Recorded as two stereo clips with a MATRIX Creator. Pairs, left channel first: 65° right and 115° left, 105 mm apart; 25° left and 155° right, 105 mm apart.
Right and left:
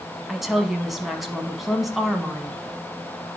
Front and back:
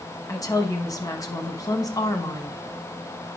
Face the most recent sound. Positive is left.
turn(degrees=25)